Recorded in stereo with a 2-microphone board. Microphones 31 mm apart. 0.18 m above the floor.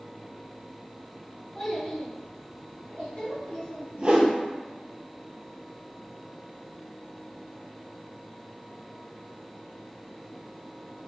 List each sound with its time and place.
1.6 s a child speaking: 15° left (ahead or behind), 1.4 m; by 3.9 s 65° left (ahead or behind), 2.5 m
4.0 s a whoosh: 40° right (ahead or behind), 1.0 m